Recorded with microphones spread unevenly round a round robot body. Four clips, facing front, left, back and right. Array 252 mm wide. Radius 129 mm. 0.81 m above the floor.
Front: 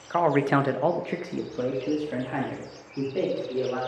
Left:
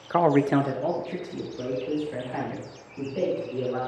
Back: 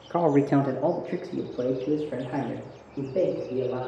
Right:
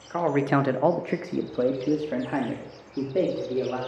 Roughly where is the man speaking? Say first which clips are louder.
Left 3 dB, back 1 dB; behind left.